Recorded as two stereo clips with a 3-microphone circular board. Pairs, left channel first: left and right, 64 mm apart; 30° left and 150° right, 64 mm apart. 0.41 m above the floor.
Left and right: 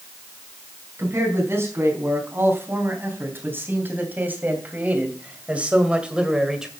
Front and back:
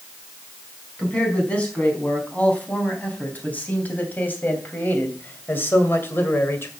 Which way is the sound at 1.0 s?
40° right.